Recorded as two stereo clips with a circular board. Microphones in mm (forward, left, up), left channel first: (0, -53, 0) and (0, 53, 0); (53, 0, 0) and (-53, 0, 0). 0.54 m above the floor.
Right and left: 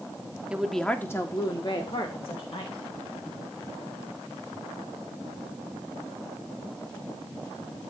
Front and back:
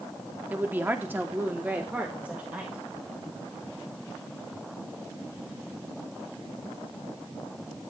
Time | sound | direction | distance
0.5 | a woman speaking | 150° left | 1.1 m